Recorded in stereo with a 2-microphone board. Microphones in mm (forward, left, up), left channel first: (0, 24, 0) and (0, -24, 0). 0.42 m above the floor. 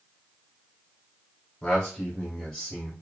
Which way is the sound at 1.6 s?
35° left (ahead or behind).